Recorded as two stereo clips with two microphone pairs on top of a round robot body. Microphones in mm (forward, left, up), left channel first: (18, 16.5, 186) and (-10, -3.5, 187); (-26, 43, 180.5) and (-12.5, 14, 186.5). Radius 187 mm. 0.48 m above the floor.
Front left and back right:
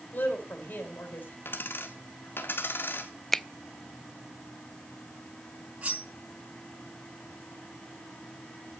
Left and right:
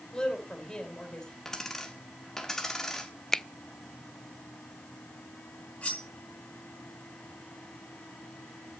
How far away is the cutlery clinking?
About 5 m.